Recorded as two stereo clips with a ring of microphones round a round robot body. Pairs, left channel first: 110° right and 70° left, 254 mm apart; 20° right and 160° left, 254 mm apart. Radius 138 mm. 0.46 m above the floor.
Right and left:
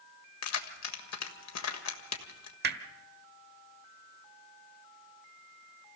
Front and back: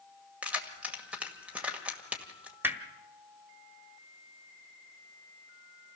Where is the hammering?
80° left, 1.3 m.